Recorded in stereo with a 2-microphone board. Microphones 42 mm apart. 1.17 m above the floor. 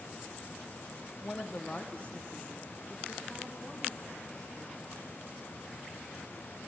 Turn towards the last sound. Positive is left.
turn(degrees=20)  # may be behind; listen again after turning